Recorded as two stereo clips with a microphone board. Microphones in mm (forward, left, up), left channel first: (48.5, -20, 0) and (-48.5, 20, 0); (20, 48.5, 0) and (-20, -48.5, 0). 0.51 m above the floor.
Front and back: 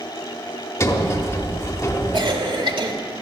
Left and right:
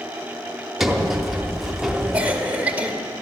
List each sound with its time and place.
0.8 s a sliding door: 25° right, 1.2 m
2.1 s a cough: 175° left, 1.9 m